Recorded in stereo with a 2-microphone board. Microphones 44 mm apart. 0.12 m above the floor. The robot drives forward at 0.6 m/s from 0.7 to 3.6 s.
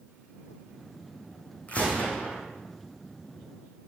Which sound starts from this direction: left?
A gunshot, at 1.7 s.